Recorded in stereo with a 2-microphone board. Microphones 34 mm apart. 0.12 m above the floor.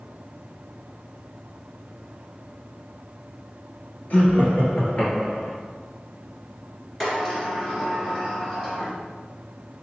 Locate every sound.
4.1 s laughter: 55° left (ahead or behind), 1.7 m; by 5.6 s 35° left (ahead or behind), 1.4 m
7.0 s a sliding door: 10° left (ahead or behind), 1.9 m